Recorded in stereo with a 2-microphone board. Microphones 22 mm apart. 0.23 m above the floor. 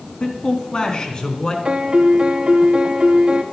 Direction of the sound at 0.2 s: 45° left (ahead or behind).